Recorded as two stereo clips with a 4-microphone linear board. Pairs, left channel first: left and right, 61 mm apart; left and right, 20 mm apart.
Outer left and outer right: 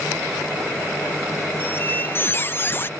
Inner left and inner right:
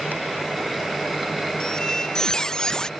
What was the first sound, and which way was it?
A squeak, 35° left (ahead or behind).